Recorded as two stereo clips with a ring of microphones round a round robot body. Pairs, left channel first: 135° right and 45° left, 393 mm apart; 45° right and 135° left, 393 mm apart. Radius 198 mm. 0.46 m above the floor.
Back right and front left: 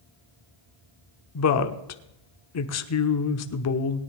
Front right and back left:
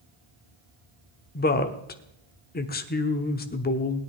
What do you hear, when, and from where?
1.4 s a woman speaking: 105° right, 1.0 m